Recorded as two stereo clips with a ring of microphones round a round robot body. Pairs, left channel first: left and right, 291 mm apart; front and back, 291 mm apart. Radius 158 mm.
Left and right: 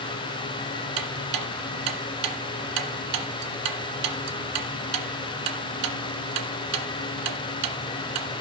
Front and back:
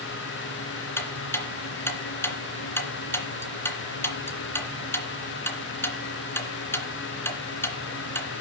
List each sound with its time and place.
1.0 s ticking: 80° right, 2 m